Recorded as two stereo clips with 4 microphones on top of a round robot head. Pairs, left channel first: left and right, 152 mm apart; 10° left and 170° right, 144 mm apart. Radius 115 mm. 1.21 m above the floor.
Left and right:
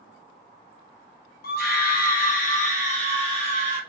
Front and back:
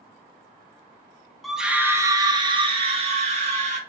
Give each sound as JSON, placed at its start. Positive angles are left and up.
{"t": 1.4, "sound": "a scream", "azimuth_deg": 95, "distance_m": 0.9}